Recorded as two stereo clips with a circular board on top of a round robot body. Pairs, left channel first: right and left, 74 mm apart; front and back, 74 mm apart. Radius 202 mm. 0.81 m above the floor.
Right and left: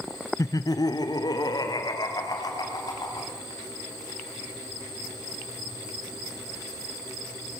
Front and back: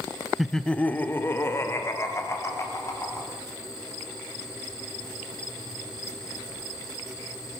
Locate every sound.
0.4 s laughter: 95° right, 0.9 m; by 3.3 s 55° right, 4 m